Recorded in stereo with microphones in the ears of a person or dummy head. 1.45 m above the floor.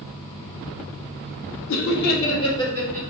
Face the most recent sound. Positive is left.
turn(degrees=10)  # may be behind; listen again after turning